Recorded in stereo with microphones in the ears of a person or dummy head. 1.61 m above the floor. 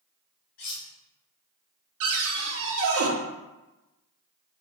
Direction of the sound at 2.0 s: 75° right (ahead or behind).